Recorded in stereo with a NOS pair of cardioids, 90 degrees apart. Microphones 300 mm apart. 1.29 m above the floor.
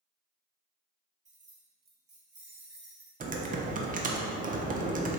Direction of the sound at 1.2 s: 25° right.